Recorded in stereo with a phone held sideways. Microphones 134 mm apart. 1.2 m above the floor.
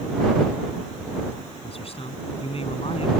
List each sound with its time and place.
1.6 s a man speaking: 45° left (ahead or behind)